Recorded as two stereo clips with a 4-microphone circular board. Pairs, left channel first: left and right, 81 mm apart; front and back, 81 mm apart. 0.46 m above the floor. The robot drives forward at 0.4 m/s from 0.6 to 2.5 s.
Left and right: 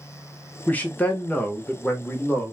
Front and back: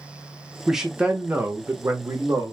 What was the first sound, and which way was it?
A man speaking, 95° left.